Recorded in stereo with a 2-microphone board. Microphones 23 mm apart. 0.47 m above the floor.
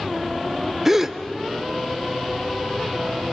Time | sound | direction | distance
0.8 | a gasp | 20° right (ahead or behind) | 0.7 m